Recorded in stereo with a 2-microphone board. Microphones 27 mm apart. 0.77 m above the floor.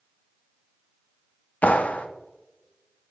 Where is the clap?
65° left (ahead or behind), 0.6 m.